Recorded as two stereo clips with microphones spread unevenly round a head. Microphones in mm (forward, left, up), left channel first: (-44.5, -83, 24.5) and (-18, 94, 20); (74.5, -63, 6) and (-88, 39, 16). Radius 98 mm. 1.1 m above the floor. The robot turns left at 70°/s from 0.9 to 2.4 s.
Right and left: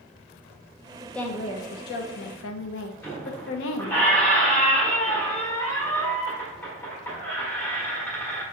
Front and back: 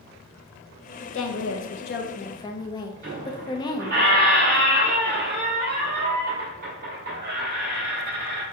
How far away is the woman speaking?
About 0.7 m.